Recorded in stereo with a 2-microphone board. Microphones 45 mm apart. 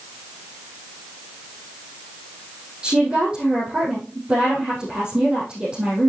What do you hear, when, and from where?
2.8 s a woman speaking: 20° right (ahead or behind), 3.5 m